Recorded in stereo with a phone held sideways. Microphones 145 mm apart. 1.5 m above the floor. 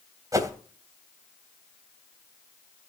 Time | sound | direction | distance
0.3 | a whoosh | 25° right (ahead or behind) | 2.5 m